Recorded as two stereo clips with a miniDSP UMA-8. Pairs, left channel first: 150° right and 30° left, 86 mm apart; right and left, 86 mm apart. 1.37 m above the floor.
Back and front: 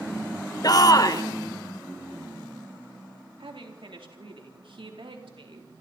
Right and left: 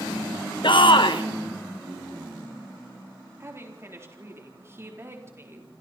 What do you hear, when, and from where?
0.6 s a shout: 110° right, 1.6 m
3.4 s a woman speaking: 30° left, 4 m